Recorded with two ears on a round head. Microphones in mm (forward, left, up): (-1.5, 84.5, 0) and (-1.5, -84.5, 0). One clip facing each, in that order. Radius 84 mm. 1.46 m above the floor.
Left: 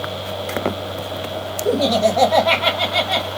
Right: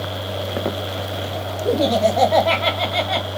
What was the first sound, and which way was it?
Laughter, centre (ahead or behind).